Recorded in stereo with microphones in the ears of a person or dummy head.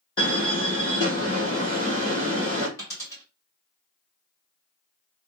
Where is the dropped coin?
15° left (ahead or behind), 2 m.